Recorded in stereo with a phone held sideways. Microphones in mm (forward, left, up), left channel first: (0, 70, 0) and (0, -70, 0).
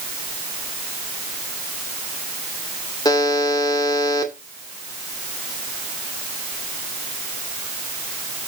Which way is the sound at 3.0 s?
30° left (ahead or behind).